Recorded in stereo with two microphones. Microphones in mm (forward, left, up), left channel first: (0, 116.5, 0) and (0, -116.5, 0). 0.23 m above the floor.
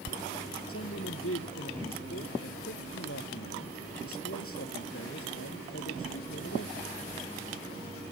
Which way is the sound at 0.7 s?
70° left (ahead or behind).